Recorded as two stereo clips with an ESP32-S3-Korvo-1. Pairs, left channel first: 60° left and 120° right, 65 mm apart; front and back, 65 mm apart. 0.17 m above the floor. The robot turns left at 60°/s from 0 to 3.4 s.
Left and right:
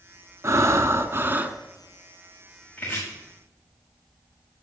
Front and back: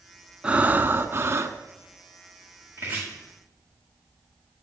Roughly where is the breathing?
Behind right.